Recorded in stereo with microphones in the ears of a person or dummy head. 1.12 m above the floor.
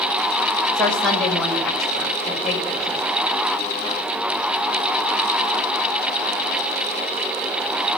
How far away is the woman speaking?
About 5.5 m.